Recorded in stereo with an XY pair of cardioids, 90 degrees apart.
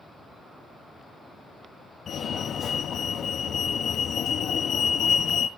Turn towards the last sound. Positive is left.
turn(degrees=65)